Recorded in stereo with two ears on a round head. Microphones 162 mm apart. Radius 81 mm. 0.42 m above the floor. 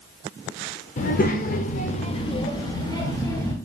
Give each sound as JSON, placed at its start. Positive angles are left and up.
{"t": 1.0, "sound": "a child speaking", "side_deg": 40, "distance_m": 0.5}